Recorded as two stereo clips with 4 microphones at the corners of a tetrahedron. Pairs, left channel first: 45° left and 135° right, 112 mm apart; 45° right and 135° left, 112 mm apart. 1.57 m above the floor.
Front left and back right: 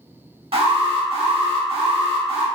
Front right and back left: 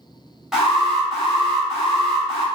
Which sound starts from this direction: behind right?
An alarm, at 0.5 s.